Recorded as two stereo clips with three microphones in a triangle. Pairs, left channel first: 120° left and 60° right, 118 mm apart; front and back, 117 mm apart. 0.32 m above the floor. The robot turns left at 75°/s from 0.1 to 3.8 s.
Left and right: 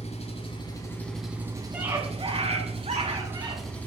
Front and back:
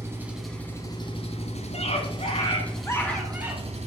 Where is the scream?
20° left, 3 m; by 3.8 s 135° right, 3 m.